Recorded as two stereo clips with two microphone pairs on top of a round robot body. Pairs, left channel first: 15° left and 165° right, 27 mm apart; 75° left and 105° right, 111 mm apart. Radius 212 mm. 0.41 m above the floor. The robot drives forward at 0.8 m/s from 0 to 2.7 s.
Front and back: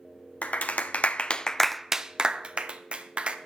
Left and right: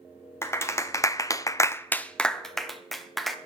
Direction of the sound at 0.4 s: 15° left.